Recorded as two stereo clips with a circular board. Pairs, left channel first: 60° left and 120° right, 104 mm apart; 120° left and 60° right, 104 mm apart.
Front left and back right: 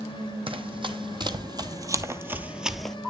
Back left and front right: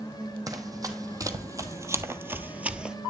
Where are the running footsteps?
105° right, 1.7 m; by 3.0 s 5° right, 0.9 m.